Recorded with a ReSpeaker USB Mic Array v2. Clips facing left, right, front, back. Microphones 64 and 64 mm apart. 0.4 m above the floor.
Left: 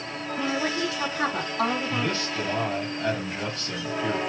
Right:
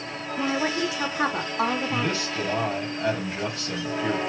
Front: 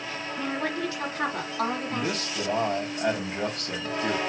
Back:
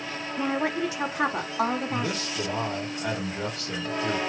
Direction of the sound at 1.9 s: 20° right.